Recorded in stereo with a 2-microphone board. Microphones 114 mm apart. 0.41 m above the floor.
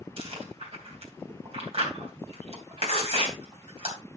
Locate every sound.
0.2 s chewing: 55° right (ahead or behind), 3 m